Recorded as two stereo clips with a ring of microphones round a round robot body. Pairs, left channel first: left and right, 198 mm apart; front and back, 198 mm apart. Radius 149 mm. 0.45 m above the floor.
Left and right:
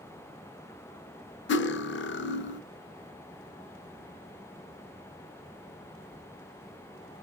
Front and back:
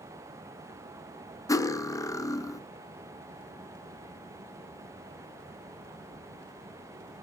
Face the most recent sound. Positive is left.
turn(degrees=75)